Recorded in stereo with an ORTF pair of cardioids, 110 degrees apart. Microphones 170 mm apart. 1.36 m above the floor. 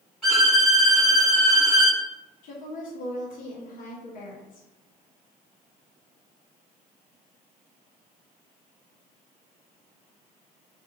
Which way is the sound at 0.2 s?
Straight ahead.